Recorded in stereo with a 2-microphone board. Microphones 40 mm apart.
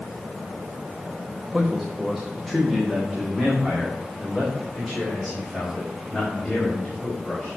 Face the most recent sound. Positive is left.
turn(degrees=15)  # may be behind; listen again after turning